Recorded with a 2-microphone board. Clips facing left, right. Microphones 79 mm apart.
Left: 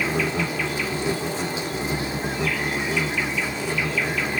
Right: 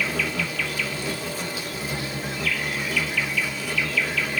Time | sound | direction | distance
0.0 | an insect | 25° left (ahead or behind) | 2.0 m